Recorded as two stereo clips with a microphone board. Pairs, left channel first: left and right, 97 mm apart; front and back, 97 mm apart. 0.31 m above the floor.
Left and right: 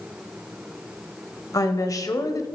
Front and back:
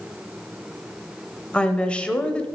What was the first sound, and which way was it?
A woman speaking, 70° left.